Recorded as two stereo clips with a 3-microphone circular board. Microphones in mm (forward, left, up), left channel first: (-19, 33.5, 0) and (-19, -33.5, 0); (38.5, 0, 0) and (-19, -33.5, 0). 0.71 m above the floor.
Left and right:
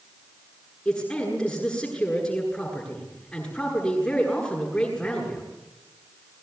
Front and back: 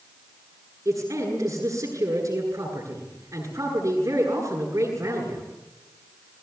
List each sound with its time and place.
0.8 s a man speaking: 170° left, 9 m